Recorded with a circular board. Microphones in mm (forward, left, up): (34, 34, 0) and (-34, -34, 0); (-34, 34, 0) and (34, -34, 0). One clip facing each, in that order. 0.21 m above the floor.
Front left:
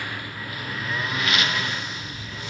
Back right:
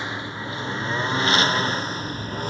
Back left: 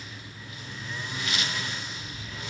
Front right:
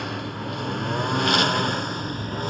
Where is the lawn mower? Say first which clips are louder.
Back right 3 dB, front right 15 dB; 65° right; by 2.5 s 85° right.